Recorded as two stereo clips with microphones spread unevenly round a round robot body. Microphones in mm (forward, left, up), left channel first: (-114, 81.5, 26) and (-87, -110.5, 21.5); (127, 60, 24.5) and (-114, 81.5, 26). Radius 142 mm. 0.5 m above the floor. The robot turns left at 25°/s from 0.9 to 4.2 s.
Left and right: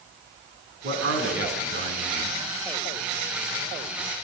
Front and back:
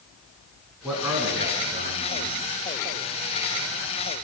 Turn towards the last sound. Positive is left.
turn(degrees=180)